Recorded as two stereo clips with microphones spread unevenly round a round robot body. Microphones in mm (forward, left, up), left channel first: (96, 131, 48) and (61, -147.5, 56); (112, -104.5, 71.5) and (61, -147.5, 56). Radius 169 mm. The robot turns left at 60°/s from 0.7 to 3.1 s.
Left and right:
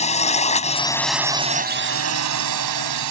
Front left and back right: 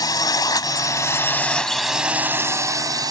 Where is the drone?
15° left; by 3.1 s 125° right.